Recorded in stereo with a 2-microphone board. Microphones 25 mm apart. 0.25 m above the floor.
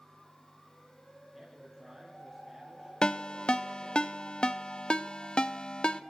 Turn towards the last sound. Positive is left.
turn(degrees=40)  # may be behind; listen again after turning